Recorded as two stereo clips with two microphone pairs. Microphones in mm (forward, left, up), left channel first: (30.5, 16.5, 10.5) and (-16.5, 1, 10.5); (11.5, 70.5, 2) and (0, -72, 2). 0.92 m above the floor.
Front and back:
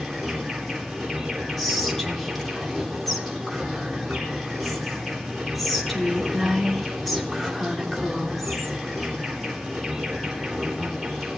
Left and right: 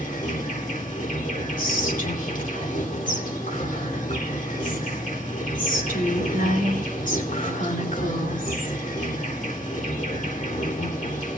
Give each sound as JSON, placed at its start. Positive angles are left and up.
{"t": 0.0, "sound": "an insect", "azimuth_deg": 105, "distance_m": 3.5}
{"t": 1.6, "sound": "whispering", "azimuth_deg": 105, "distance_m": 2.5}